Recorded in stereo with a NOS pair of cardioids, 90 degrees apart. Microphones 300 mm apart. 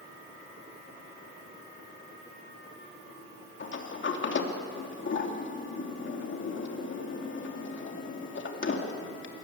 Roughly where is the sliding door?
Ahead left.